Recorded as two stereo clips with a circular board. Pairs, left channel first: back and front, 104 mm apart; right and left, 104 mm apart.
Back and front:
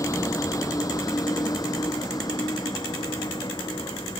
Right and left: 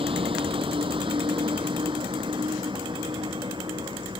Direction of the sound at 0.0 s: 120° left.